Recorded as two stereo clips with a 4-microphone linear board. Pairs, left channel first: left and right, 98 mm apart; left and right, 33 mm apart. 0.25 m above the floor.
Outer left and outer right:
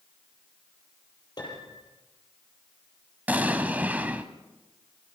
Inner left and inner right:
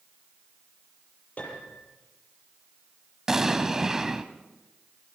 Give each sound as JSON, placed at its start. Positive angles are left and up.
{"t": 1.4, "sound": "a piano", "side_deg": 45, "distance_m": 6.0}
{"t": 3.3, "sound": "an explosion", "side_deg": -15, "distance_m": 1.3}